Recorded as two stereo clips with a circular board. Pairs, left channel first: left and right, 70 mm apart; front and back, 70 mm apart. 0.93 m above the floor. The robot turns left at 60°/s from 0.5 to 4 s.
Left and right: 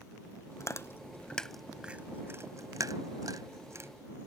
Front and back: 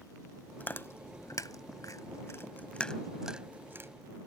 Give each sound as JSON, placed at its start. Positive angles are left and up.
{"t": 0.6, "sound": "chewing", "azimuth_deg": 65}